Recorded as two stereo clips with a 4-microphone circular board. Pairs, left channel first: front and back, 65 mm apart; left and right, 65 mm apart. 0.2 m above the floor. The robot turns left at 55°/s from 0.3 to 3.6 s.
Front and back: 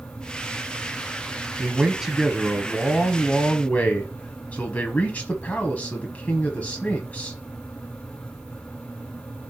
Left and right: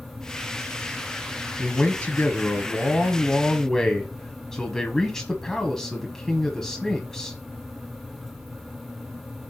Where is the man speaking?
130° left, 1.1 m; by 7.4 s 15° left, 1.1 m.